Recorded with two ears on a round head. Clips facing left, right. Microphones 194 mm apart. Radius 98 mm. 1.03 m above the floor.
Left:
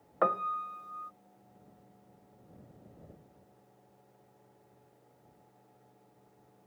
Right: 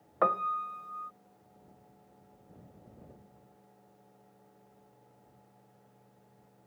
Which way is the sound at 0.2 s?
Centre (ahead or behind).